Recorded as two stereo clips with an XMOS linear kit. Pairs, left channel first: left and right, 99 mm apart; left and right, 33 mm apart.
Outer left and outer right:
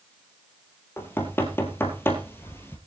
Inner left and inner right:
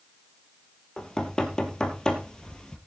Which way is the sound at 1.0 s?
25° left (ahead or behind).